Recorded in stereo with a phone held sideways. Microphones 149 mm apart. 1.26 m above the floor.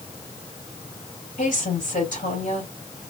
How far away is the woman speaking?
About 3 m.